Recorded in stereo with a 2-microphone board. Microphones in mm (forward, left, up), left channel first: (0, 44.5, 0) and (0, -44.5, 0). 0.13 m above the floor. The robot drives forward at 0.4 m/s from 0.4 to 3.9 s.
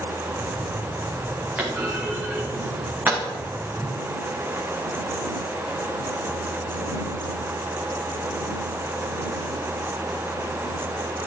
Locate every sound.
1.6 s a clunk: 15° right (ahead or behind), 3 m; by 3.2 s 20° right (ahead or behind), 2.5 m
3.8 s a whoosh: 5° left (ahead or behind), 1.1 m